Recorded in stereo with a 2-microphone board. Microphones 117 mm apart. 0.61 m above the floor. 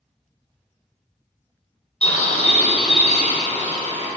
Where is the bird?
85° left, 2 m.